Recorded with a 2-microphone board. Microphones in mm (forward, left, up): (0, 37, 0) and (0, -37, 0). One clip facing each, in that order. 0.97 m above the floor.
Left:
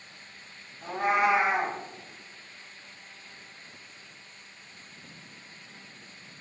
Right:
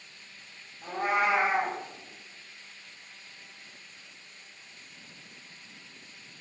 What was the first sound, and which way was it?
A cat meowing, 45° left (ahead or behind).